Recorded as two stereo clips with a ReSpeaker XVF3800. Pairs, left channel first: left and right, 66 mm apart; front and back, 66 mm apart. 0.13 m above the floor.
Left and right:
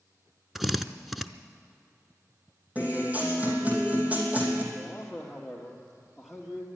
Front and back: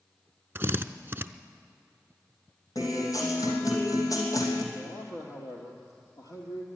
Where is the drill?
175° right, 0.5 m.